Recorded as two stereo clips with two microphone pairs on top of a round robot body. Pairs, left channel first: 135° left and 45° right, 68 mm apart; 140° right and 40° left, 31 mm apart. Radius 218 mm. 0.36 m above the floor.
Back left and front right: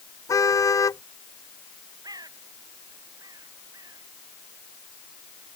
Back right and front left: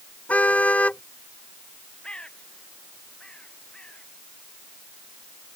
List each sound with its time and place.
0.3 s a car horn: straight behind
2.0 s a bird: 80° right